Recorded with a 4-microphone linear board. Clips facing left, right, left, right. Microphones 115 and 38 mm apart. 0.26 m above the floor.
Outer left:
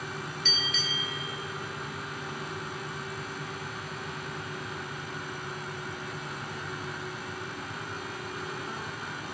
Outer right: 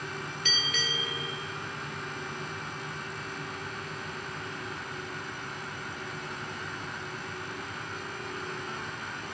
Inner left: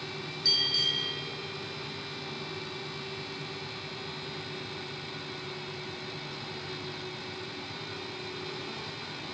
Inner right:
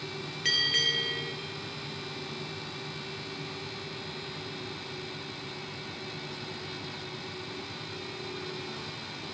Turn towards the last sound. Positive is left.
turn(degrees=-60)  # may be behind; listen again after turning